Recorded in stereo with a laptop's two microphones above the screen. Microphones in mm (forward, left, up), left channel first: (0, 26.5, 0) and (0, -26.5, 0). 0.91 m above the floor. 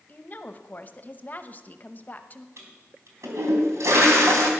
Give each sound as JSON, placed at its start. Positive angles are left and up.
{"t": 0.1, "sound": "a woman speaking", "side_deg": 35, "distance_m": 0.8}
{"t": 2.6, "sound": "a toilet flushing", "side_deg": -65, "distance_m": 3.5}